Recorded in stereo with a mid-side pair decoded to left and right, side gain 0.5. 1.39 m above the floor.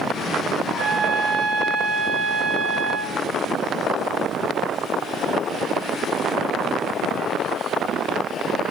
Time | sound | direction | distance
0.7 | a trumpet | 45° right | 2 m